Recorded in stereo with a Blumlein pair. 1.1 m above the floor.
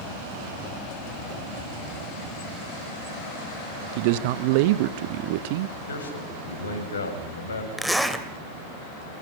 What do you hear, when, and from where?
4.0 s a man speaking: 50° right, 0.8 m
5.9 s a man speaking: 70° left, 7 m
7.8 s a zipper: straight ahead, 2 m